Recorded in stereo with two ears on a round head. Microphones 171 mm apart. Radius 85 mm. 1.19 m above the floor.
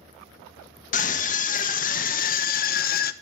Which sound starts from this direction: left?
A scream, at 0.9 s.